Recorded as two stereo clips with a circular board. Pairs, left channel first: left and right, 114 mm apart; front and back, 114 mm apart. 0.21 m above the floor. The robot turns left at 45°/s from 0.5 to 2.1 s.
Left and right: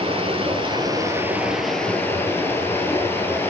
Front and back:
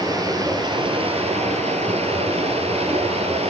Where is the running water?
130° right, 2.5 m; by 3.5 s 160° left, 2.5 m.